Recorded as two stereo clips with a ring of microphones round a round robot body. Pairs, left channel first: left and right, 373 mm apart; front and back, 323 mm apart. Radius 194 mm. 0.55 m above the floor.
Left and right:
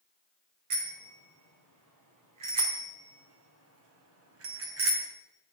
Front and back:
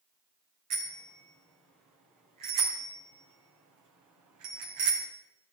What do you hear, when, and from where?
0.7 s a bicycle bell: 130° right, 5 m; by 5.1 s 145° right, 3 m